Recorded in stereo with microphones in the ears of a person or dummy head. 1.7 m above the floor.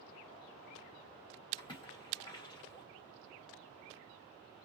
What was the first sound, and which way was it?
A splash, 25° left (ahead or behind).